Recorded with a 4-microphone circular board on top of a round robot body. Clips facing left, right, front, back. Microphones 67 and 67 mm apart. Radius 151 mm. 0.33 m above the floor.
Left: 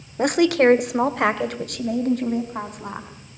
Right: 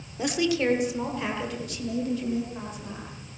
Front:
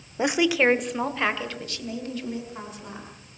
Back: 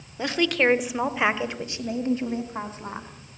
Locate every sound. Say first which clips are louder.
0.2 s a woman speaking: left 8 dB, front 2 dB; 65° left, 1.4 m; by 3.1 s 125° left, 4 m